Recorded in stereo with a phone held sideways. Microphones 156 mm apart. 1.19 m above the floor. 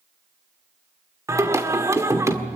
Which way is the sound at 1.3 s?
20° right (ahead or behind).